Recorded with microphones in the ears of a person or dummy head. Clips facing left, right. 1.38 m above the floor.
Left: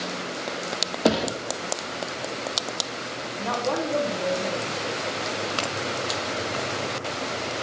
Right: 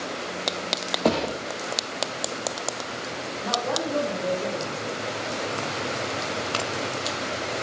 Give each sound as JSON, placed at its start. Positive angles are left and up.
{"t": 1.1, "sound": "a thud", "side_deg": 10, "distance_m": 1.4}
{"t": 3.4, "sound": "a woman speaking", "side_deg": 60, "distance_m": 4.5}